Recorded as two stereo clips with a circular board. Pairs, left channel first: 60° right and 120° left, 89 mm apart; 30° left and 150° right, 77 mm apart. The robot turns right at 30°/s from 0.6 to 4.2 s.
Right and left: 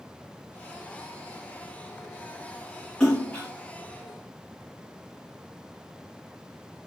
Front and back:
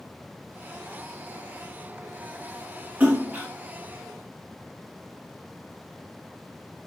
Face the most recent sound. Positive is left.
turn(degrees=-100)